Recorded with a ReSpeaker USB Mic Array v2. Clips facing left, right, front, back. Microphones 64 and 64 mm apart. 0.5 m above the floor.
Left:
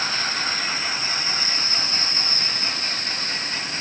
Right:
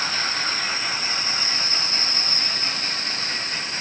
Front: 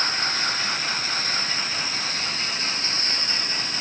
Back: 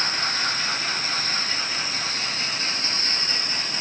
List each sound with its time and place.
Only background noise.